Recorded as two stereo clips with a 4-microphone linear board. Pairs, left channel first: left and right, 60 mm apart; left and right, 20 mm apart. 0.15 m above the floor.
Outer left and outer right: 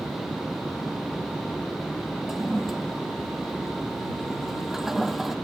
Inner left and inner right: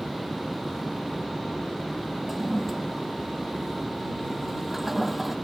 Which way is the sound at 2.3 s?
5° right (ahead or behind).